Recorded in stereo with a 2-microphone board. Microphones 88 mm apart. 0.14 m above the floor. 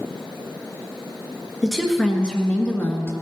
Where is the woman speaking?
Centre (ahead or behind), 1.9 m; by 3.1 s 30° left (ahead or behind), 1.5 m.